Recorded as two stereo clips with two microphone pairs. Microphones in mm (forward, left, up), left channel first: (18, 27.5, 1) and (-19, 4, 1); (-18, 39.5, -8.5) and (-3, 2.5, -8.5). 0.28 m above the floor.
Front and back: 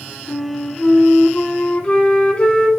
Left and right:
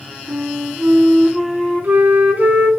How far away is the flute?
About 0.8 m.